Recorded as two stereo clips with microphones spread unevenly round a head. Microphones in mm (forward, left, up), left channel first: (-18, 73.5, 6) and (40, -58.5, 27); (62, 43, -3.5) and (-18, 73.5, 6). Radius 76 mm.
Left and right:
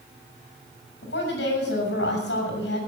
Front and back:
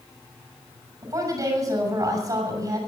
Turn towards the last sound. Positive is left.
turn(degrees=115)